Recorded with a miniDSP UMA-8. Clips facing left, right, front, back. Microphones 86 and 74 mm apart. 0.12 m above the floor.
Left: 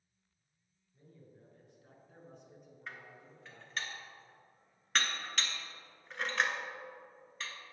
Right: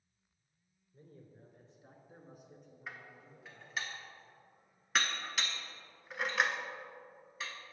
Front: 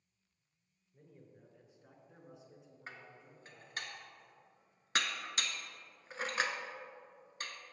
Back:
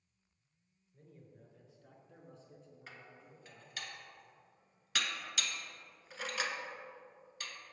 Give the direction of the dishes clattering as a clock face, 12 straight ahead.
12 o'clock.